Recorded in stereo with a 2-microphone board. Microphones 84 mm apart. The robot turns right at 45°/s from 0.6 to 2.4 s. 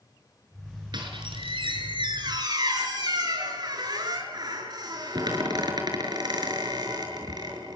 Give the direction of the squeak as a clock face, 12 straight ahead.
4 o'clock.